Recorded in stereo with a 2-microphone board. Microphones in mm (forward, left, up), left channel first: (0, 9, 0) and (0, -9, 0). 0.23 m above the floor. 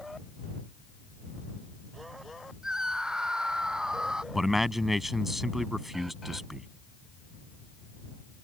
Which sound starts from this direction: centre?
A man speaking, at 4.3 s.